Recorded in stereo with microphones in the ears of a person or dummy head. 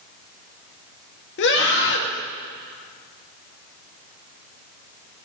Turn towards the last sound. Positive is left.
turn(degrees=65)  # may be behind; listen again after turning